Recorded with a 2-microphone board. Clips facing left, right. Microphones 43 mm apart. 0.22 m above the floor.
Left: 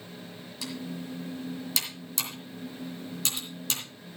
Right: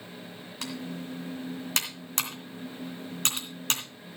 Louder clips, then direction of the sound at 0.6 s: Even; 55° right (ahead or behind).